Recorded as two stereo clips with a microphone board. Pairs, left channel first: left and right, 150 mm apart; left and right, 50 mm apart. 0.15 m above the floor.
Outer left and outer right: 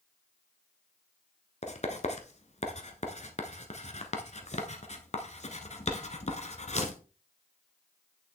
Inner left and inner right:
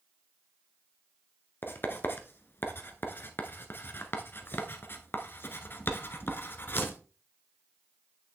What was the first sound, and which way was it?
Writing, 50° left (ahead or behind).